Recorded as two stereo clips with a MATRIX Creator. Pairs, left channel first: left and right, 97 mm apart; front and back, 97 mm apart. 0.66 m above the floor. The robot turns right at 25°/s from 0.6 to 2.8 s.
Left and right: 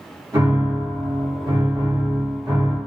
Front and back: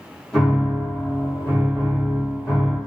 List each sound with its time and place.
0.3 s a piano: 85° right, 1.5 m; by 2.8 s 30° right, 1.5 m